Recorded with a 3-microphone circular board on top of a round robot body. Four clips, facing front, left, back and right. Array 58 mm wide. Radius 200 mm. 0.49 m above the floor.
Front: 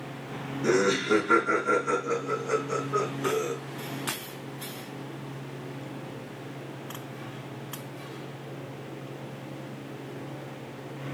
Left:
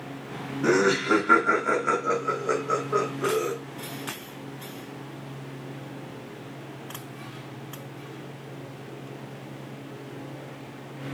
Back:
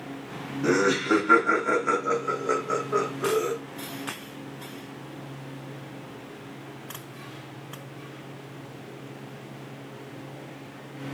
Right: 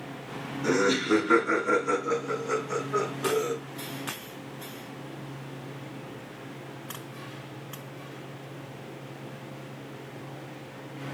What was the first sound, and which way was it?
Laughter, 115° left.